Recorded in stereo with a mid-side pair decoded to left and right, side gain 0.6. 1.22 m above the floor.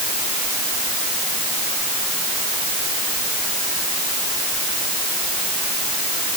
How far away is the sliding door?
No sliding door in this recording.